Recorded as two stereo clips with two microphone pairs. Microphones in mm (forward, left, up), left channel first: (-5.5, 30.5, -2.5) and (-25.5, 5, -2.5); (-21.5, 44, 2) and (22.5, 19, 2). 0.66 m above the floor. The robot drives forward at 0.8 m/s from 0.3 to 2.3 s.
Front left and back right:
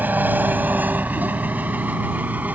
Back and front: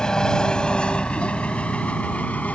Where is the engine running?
135° right; by 2.6 s 150° right.